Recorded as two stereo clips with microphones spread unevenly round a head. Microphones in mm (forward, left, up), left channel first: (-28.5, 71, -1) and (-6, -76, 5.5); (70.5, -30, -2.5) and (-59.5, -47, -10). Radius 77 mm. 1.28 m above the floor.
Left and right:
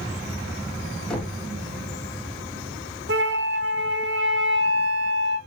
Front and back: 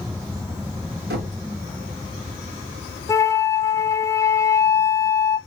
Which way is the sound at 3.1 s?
60° right.